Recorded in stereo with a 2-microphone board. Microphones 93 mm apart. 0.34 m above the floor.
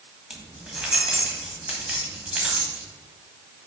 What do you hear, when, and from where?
0.3 s keys jangling: 10° right (ahead or behind), 1.4 m